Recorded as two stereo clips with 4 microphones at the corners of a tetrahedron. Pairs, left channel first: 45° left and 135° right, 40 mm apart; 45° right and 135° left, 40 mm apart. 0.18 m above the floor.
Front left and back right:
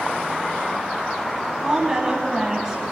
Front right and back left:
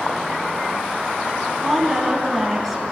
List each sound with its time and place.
1.6 s a woman speaking: 135° right, 1.1 m